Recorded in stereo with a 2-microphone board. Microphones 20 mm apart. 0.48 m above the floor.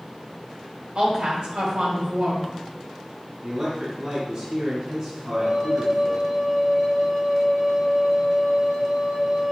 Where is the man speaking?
40° right (ahead or behind), 3.5 m.